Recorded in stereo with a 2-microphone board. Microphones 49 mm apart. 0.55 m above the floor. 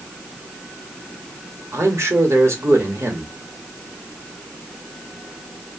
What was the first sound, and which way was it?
A man speaking, 65° right (ahead or behind).